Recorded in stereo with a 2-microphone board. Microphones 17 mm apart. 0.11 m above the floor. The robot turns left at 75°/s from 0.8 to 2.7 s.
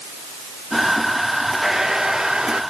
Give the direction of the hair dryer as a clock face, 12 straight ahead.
1 o'clock.